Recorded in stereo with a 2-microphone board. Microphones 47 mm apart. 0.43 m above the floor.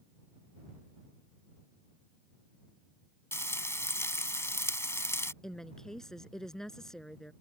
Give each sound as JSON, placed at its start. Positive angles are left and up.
{"t": 3.3, "sound": "frying", "side_deg": 65}
{"t": 5.4, "sound": "a woman speaking", "side_deg": 10}